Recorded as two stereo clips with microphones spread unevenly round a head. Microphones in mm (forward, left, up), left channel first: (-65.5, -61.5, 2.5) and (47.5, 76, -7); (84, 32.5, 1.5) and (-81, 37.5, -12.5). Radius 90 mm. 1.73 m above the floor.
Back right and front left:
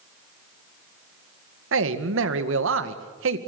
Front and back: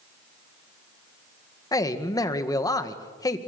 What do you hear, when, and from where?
1.7 s a man speaking: 65° left, 1.9 m